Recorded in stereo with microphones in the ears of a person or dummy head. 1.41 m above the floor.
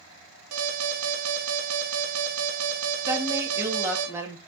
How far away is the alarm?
About 2.5 m.